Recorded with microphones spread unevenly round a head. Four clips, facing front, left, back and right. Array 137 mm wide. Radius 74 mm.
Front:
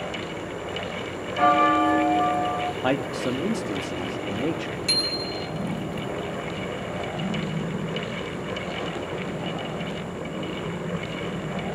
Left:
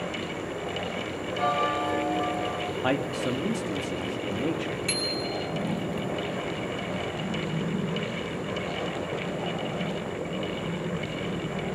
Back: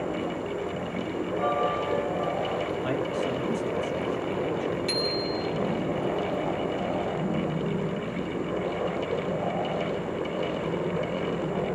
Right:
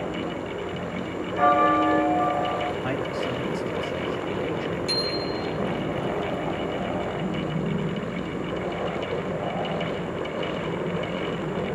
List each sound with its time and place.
1.4 s a bell: 30° right, 1.2 m
2.8 s a man speaking: 30° left, 1.9 m
4.9 s a bicycle bell: 105° left, 2.5 m